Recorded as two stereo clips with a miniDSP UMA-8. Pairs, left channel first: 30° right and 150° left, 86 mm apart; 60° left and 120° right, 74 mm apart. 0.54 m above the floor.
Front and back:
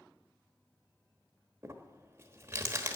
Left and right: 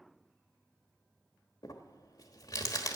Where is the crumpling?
95° left, 1.1 m.